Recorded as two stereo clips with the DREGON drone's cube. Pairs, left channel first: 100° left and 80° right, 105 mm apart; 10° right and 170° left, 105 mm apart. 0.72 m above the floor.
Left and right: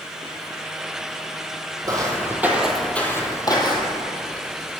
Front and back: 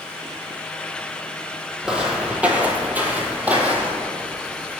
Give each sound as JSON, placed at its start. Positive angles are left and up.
{"t": 1.9, "sound": "footsteps", "azimuth_deg": -115, "distance_m": 1.0}